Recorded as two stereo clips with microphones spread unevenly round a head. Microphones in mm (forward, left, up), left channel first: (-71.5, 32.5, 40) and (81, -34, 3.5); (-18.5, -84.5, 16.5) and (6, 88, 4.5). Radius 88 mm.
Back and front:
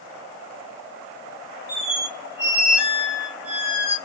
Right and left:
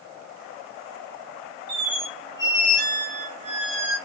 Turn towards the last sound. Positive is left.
turn(degrees=65)